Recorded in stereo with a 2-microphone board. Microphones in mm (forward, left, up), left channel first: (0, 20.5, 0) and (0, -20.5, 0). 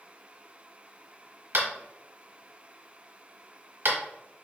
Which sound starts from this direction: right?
Tapping, at 1.5 s.